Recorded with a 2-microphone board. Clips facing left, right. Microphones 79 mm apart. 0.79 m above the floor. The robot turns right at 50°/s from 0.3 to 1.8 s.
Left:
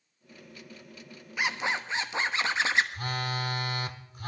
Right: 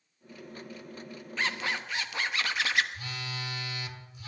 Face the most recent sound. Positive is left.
turn(degrees=45)  # may be behind; listen again after turning